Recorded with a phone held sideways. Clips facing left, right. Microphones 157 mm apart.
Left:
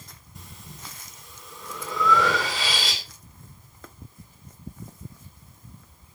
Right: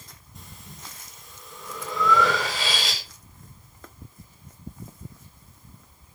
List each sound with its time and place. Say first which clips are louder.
0.3 s breathing: left 1 dB; centre (ahead or behind), 3 m